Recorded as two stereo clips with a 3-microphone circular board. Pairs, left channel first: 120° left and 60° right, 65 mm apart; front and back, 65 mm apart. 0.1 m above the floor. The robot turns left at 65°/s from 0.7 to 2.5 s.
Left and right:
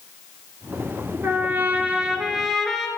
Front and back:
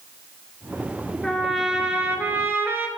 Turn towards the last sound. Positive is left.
turn(degrees=-155)